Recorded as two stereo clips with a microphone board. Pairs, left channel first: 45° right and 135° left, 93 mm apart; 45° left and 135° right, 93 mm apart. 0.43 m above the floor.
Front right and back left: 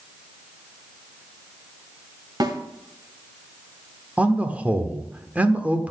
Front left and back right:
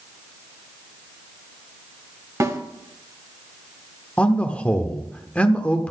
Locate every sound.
2.4 s a snare drum: 175° left, 1.3 m
4.2 s a man speaking: 95° left, 0.8 m